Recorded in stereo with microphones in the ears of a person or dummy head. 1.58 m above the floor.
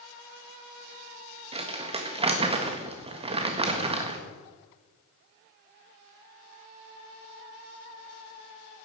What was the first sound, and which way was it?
Crumpling, 25° right (ahead or behind).